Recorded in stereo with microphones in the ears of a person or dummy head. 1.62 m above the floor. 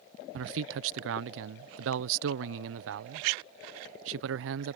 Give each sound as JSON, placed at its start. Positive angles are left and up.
{"t": 0.3, "sound": "a man speaking", "side_deg": -65}